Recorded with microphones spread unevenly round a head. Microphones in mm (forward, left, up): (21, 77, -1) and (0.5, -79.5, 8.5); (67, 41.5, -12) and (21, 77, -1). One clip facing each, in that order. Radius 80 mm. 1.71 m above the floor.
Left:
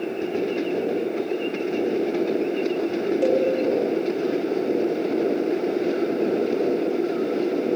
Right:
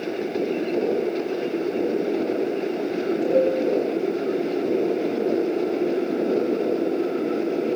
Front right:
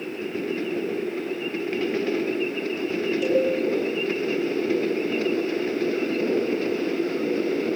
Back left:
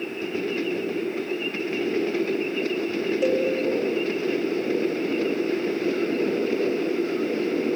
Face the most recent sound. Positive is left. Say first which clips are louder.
# right 1 dB, front right 1 dB
turn(degrees=100)